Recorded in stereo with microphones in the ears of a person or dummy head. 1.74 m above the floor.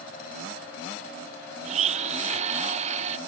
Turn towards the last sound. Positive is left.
turn(degrees=-35)  # may be behind; listen again after turning